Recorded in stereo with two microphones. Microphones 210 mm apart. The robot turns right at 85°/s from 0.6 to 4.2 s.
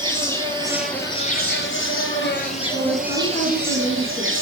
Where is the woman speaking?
40° left, 4 m; by 4.3 s 170° left, 4 m.